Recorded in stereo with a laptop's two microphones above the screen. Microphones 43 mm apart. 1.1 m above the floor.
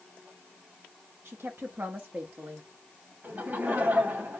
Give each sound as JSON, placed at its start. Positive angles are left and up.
{"t": 1.2, "sound": "a woman speaking", "side_deg": -70, "distance_m": 1.2}
{"t": 3.2, "sound": "laughter", "side_deg": -50, "distance_m": 2.5}